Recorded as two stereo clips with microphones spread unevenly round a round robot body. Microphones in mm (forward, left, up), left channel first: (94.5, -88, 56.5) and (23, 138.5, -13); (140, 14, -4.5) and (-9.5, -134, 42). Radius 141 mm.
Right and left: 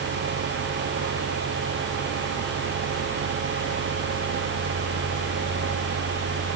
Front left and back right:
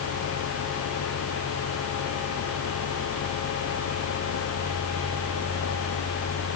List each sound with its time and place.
Only background noise.